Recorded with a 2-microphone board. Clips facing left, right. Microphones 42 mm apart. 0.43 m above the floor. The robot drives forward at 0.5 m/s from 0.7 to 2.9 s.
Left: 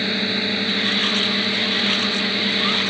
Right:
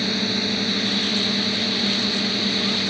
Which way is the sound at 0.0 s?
25° left (ahead or behind).